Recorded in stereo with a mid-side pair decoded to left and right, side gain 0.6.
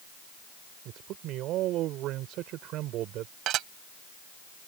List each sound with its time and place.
0.8 s a man speaking: 65° right
3.5 s dishes clattering: 60° right